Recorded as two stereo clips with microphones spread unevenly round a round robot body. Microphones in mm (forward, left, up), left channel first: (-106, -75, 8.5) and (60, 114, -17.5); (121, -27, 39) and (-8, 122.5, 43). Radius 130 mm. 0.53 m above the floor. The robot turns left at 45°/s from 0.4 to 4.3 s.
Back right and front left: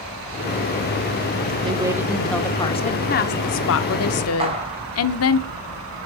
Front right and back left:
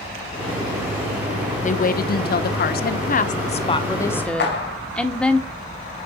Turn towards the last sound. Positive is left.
turn(degrees=-20)